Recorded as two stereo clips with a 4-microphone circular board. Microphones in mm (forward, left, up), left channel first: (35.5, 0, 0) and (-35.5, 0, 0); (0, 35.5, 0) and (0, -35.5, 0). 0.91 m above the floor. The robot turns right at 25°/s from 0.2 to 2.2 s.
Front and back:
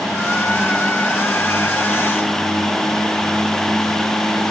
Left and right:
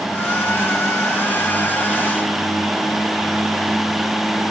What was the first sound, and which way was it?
Only background noise.